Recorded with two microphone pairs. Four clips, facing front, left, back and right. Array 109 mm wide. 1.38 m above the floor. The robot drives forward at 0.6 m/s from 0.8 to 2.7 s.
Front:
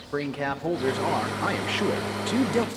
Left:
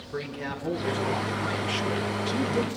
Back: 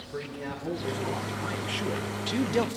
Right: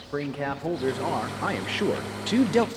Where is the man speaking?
30° right, 1.3 m; by 2.7 s 90° right, 0.6 m.